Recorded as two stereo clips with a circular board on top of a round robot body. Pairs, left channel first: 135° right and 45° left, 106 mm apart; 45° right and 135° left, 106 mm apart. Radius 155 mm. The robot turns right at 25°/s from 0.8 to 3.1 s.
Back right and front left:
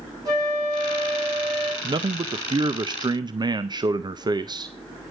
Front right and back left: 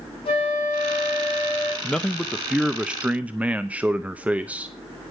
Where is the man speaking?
30° left, 0.8 m; by 4.7 s 65° left, 0.8 m.